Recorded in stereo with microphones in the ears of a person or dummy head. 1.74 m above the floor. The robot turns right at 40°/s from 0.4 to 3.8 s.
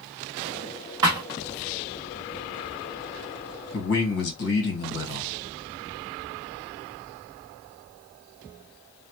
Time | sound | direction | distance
1.0 | a thud | 20° right (ahead or behind) | 1.1 m
3.7 | a man speaking | 60° left (ahead or behind) | 1.3 m